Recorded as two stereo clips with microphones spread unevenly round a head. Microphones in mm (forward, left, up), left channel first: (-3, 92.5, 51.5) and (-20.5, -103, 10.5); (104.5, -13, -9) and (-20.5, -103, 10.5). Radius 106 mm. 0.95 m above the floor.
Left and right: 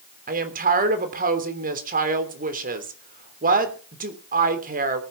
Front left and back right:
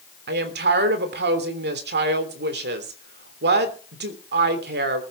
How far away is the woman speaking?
About 3 m.